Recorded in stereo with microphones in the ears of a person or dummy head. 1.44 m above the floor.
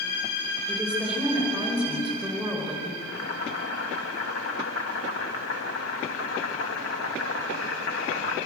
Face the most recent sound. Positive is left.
turn(degrees=85)